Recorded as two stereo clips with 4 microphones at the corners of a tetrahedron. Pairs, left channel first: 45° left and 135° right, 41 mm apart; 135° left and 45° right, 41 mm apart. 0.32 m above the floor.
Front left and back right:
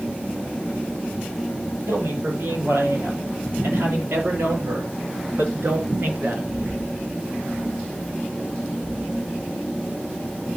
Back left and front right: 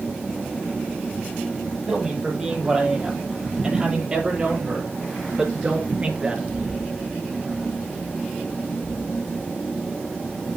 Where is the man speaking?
125° right, 8.5 m; by 6.8 s 110° right, 3.5 m.